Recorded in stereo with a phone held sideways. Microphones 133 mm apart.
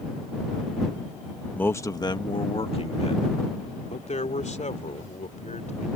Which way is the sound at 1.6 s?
10° left (ahead or behind).